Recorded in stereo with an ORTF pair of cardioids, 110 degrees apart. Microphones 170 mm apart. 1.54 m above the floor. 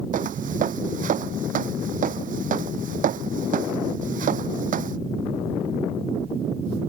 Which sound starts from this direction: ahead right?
Footsteps, at 0.1 s.